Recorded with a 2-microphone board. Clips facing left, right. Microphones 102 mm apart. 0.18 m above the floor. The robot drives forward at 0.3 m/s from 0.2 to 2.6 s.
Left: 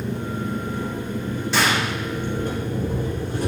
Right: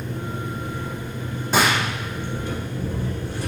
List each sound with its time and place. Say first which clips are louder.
0.0 s an engine running: left 3 dB; 60° left (ahead or behind), 2.5 m; by 3.5 s 50° left (ahead or behind), 3 m
1.5 s a gunshot: right 2 dB; 45° right (ahead or behind), 1.8 m